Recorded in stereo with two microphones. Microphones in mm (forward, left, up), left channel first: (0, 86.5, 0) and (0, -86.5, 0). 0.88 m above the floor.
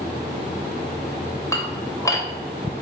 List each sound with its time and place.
1.5 s dishes clattering: 15° left (ahead or behind), 2.5 m